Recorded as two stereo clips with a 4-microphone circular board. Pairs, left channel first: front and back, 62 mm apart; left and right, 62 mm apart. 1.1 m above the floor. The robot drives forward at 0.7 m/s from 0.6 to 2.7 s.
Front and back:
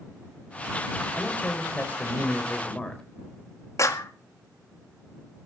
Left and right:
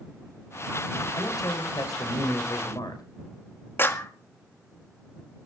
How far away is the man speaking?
About 5 m.